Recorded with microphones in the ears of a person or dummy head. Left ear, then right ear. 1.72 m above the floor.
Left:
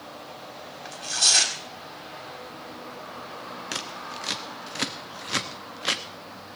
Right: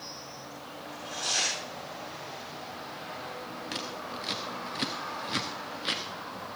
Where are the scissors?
30° left (ahead or behind), 0.9 m.